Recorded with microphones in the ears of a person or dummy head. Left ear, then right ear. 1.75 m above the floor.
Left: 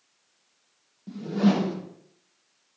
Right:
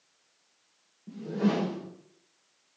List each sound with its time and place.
1.1 s a whoosh: 40° left (ahead or behind), 0.6 m